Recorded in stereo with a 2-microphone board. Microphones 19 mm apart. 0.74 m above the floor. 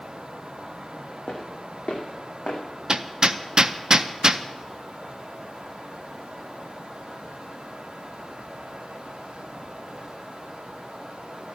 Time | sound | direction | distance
1.3 | footsteps | 70° left (ahead or behind) | 2.5 m
2.9 | hammering | 40° right (ahead or behind) | 0.5 m